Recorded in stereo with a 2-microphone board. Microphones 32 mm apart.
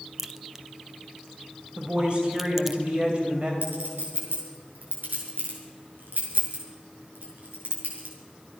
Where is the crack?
10° right (ahead or behind), 0.8 m.